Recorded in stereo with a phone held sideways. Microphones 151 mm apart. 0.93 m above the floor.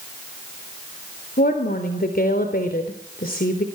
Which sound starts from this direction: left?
A woman speaking, at 1.4 s.